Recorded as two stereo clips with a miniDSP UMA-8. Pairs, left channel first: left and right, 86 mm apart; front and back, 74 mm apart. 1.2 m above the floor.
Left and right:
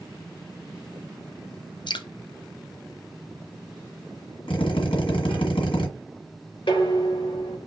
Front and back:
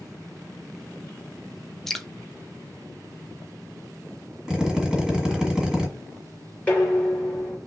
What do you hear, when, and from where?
1.9 s dripping: 85° left, 0.6 m
4.5 s a drill: 95° left, 1.6 m
6.7 s dishes clattering: 75° left, 2 m